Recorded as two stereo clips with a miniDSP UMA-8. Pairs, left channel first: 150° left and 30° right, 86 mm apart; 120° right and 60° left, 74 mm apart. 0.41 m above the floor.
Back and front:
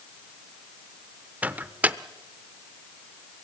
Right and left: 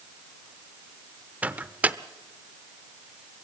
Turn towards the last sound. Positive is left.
turn(degrees=15)